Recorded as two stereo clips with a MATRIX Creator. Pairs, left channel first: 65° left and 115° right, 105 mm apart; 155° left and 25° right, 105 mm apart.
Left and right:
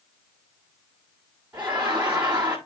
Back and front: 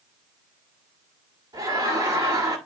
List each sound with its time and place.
1.5 s laughter: 40° right, 1.9 m